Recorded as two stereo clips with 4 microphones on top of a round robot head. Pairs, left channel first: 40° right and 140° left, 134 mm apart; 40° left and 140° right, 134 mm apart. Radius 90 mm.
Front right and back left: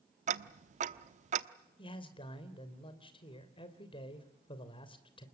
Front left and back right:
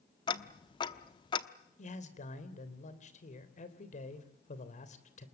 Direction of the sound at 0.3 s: 100° left.